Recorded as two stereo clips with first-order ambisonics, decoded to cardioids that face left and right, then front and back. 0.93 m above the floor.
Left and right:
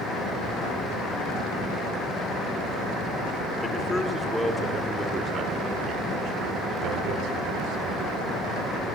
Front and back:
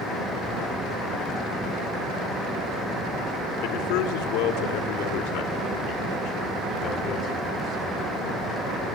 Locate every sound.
3.6 s a man speaking: 10° left, 2.5 m; by 8.1 s 65° right, 3 m